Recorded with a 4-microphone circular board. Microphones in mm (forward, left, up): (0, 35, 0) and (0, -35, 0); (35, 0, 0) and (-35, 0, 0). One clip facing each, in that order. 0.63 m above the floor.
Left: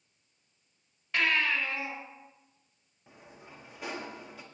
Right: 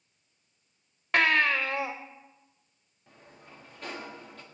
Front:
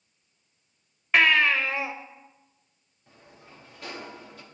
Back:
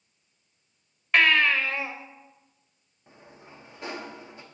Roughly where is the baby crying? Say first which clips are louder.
Right 5 dB, even; right.